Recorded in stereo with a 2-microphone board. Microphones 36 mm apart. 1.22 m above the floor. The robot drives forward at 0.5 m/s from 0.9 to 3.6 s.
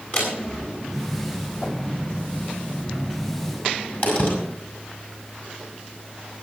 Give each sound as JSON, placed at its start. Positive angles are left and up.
{"t": 0.1, "sound": "a door slam", "side_deg": 45, "distance_m": 7.0}